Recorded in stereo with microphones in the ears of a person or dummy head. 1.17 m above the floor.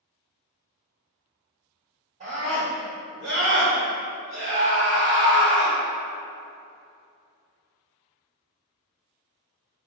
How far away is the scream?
About 1.9 m.